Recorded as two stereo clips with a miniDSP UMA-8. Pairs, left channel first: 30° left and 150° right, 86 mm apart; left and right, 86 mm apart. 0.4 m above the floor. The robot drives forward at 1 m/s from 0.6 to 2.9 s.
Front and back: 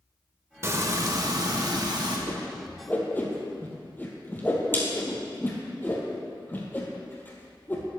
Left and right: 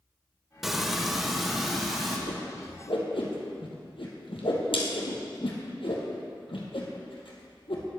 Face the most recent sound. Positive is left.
turn(degrees=100)